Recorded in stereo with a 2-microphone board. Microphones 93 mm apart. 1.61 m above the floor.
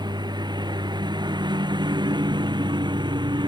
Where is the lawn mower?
50° right (ahead or behind); by 3.5 s 55° right (ahead or behind).